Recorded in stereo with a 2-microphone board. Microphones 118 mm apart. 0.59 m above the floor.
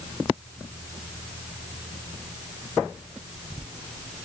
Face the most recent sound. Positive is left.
No sound to turn to.